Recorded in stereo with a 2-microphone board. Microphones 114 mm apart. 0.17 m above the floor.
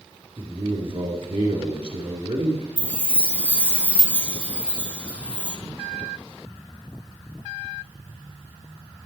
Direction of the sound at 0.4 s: 55° right (ahead or behind).